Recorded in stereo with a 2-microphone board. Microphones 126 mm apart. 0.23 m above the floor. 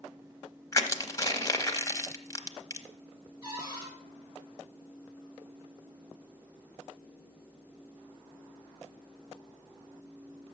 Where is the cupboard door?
30° right (ahead or behind), 3.5 m.